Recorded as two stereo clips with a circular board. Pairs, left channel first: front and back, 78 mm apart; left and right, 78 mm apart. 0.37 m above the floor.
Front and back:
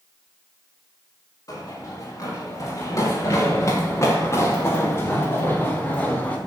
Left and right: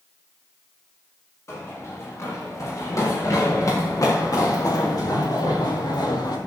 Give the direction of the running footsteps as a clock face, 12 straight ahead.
11 o'clock.